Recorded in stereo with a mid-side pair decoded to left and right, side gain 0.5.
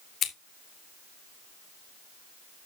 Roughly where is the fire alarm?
I don't hear a fire alarm.